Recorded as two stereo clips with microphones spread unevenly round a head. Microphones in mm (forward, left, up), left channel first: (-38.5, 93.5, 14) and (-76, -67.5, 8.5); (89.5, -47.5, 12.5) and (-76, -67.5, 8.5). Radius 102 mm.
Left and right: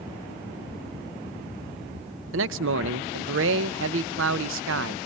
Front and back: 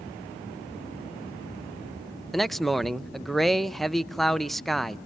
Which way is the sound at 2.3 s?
80° right.